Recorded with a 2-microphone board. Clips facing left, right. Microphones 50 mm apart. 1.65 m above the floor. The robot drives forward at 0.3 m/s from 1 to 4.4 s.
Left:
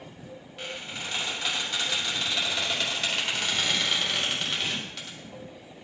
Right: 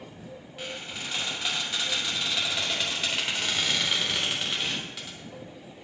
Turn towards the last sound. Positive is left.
turn(degrees=0)  # may be behind; listen again after turning